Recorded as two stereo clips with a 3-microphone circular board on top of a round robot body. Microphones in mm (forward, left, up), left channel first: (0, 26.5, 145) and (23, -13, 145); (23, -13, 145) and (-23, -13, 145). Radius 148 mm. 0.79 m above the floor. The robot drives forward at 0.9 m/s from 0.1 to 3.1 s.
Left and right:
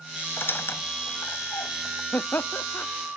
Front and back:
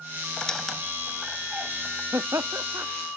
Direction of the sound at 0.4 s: 75° left.